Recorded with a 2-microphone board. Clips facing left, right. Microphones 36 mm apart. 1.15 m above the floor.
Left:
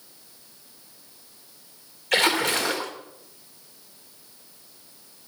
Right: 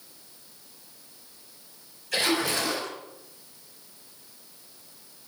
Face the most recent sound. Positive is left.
turn(degrees=80)